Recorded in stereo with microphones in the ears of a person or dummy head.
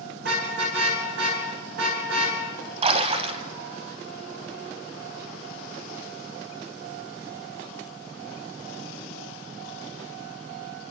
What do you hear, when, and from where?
0.2 s a car horn: 70° right (ahead or behind), 7.5 m
2.8 s a splash: 40° right (ahead or behind), 2.5 m